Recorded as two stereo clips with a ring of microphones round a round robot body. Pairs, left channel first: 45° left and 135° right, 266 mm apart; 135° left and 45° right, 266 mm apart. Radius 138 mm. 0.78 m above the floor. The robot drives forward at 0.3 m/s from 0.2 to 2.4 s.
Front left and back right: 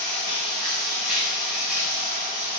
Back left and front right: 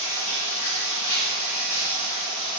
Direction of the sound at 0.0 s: 130° left.